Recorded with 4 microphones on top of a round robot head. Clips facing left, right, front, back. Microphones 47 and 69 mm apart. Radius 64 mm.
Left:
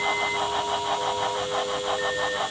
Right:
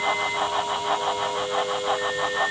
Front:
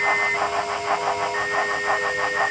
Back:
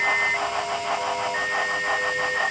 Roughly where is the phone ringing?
I don't hear a phone ringing.